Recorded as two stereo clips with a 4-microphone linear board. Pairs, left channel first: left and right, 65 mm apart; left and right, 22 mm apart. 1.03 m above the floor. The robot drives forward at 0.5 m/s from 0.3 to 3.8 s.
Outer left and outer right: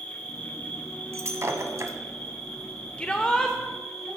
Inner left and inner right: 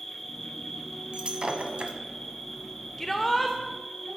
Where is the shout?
20° left (ahead or behind), 0.6 m; by 3.6 s 15° left (ahead or behind), 0.9 m.